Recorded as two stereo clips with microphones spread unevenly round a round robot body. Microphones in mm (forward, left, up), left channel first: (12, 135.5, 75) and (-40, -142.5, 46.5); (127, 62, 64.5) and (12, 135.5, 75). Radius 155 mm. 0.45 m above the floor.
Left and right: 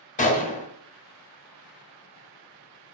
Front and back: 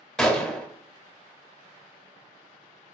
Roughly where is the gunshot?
Ahead left.